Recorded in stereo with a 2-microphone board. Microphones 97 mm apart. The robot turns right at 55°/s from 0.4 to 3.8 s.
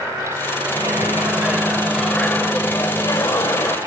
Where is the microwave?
65° right, 1.2 m; by 3.8 s 105° left, 1.2 m.